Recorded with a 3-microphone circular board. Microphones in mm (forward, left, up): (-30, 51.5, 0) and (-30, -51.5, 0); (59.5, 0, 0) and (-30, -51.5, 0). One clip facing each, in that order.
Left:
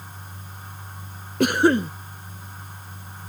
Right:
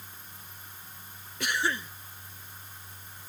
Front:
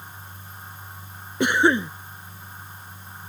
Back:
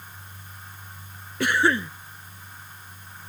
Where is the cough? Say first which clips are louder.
Left 13 dB, front 3 dB; 95° left.